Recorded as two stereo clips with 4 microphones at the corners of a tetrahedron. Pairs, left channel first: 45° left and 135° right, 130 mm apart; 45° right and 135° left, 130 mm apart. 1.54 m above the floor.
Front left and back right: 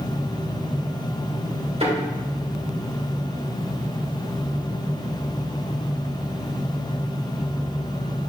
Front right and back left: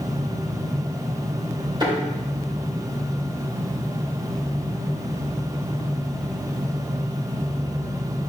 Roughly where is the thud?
Behind.